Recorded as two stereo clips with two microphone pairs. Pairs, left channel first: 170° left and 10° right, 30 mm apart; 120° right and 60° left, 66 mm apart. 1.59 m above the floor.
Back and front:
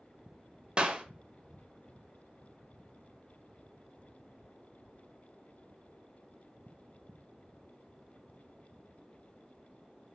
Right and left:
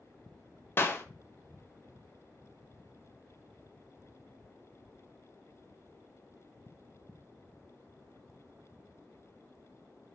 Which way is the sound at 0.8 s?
70° right.